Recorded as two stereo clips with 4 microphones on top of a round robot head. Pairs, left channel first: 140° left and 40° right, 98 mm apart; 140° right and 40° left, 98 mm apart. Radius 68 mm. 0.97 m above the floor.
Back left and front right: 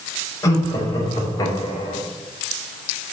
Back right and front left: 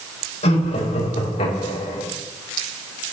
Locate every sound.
0.4 s laughter: 160° right, 5.5 m; by 2.0 s 170° right, 5 m